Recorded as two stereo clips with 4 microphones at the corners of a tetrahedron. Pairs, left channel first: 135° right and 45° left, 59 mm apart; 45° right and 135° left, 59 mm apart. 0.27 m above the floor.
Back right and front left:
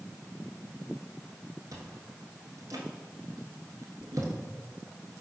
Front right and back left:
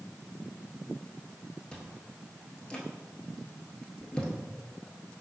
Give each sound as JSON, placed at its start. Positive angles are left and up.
{"t": 1.7, "sound": "chewing", "azimuth_deg": 30, "distance_m": 0.9}